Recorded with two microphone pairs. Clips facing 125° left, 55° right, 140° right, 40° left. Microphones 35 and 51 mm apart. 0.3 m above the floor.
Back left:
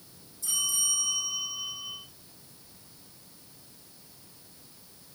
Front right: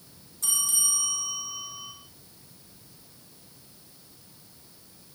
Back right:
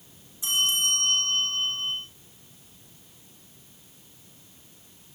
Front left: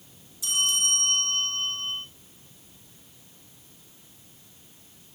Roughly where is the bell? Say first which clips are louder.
Even, back right 2 dB; right.